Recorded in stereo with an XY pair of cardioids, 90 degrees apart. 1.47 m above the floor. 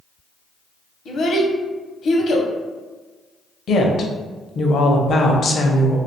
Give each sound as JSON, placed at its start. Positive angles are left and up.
{"t": 1.1, "sound": "a child speaking", "azimuth_deg": 65, "distance_m": 0.8}
{"t": 3.7, "sound": "a woman speaking", "azimuth_deg": 60, "distance_m": 0.6}